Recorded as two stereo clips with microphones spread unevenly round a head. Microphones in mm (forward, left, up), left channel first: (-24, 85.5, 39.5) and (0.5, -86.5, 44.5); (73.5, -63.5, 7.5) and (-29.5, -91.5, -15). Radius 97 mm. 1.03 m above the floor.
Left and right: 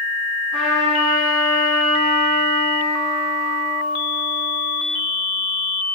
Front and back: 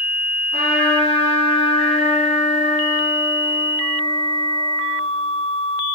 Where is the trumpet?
Straight ahead, 2.5 m.